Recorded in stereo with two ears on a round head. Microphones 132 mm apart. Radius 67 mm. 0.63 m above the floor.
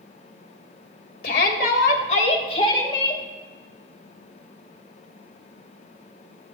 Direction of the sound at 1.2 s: 70° left (ahead or behind).